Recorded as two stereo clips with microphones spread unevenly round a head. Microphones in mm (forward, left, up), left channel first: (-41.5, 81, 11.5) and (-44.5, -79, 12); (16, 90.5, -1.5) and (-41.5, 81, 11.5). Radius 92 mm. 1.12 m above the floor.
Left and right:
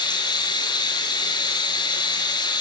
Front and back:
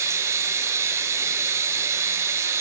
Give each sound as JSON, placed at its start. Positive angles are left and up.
{"t": 0.0, "sound": "running water", "azimuth_deg": 150, "distance_m": 7.5}